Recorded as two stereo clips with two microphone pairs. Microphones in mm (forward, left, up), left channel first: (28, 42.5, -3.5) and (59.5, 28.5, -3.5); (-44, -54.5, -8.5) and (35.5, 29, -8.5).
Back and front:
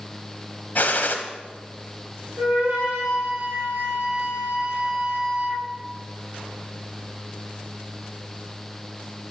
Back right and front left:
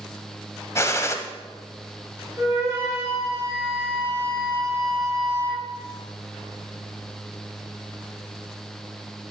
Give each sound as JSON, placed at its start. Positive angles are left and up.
{"t": 0.8, "sound": "a gunshot", "azimuth_deg": 170, "distance_m": 0.6}
{"t": 2.4, "sound": "a flute", "azimuth_deg": -20, "distance_m": 2.0}